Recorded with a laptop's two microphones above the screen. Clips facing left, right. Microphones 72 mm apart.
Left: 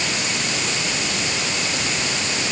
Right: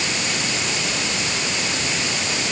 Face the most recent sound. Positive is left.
No sound to turn to.